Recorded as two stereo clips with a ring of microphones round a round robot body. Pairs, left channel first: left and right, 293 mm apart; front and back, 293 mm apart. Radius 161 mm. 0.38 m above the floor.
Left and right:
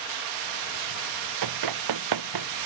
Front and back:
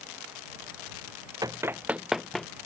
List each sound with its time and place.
1.4 s running footsteps: 100° right; by 2.5 s 90° right